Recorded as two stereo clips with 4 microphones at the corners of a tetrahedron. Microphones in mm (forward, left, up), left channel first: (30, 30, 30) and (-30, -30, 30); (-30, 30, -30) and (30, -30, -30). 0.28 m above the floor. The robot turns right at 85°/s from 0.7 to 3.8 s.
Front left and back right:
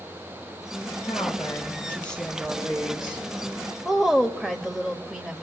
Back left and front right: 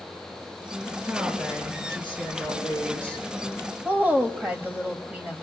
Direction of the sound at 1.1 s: 35° left.